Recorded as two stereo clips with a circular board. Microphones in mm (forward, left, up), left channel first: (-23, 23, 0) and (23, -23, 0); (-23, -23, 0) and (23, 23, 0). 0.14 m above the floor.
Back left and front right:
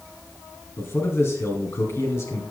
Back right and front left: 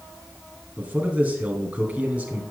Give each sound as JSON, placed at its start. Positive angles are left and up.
{"t": 0.8, "sound": "a man speaking", "azimuth_deg": 110, "distance_m": 2.5}